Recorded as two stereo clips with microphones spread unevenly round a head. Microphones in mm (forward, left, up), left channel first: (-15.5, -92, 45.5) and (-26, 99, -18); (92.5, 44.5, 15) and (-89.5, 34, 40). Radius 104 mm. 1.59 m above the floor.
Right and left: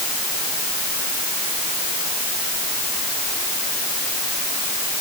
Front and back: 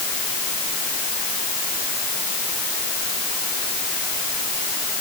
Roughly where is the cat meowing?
No cat meowing in this recording.